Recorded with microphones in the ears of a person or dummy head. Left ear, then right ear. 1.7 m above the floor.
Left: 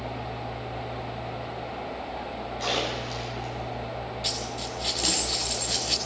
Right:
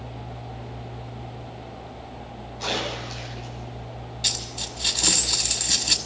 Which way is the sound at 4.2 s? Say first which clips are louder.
Right 5 dB; 25° right (ahead or behind).